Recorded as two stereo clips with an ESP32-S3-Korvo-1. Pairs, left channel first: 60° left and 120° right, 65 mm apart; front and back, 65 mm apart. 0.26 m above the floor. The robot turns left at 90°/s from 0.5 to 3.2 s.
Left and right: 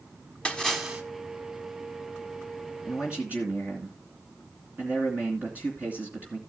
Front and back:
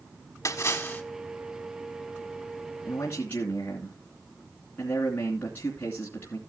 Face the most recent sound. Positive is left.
turn(degrees=-55)